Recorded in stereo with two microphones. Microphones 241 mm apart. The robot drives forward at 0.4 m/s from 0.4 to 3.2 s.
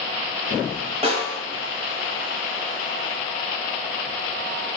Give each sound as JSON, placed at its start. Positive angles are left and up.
{"t": 1.0, "sound": "a snare drum", "side_deg": -25, "distance_m": 2.0}